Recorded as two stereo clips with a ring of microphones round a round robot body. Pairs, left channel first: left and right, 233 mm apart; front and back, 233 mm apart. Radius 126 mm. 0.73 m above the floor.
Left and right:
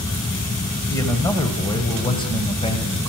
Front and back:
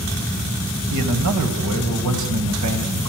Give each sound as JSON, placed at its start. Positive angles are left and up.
{"t": 0.9, "sound": "a man speaking", "azimuth_deg": 170, "distance_m": 4.5}